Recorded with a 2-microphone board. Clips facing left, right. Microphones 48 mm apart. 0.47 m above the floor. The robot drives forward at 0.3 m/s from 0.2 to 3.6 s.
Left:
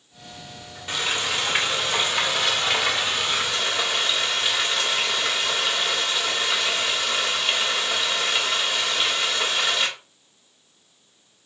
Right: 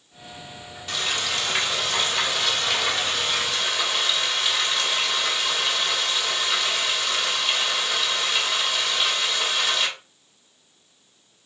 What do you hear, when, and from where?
0.9 s frying: 20° left (ahead or behind), 1.1 m; by 9.9 s 15° left (ahead or behind), 1.5 m